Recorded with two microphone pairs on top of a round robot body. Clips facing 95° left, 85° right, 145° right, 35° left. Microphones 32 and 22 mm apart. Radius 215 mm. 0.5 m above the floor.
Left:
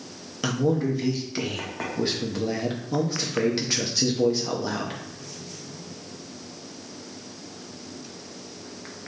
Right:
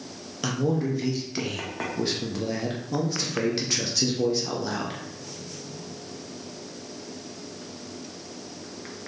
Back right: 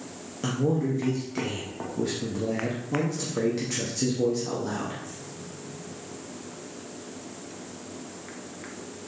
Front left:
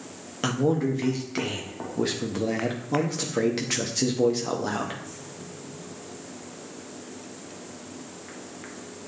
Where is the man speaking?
20° left, 1.1 m.